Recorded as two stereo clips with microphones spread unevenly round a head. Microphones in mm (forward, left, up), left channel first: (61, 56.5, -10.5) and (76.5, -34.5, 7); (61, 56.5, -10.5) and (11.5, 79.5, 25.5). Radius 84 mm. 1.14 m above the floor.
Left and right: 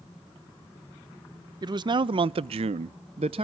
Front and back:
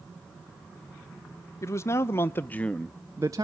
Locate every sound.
1.6 s a man speaking: 40° right, 0.9 m; by 3.5 s 140° right, 0.6 m